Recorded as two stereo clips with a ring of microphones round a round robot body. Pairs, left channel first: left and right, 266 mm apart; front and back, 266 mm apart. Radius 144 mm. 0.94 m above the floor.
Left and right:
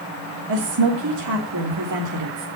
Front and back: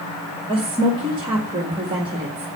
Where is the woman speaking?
105° right, 1.7 m.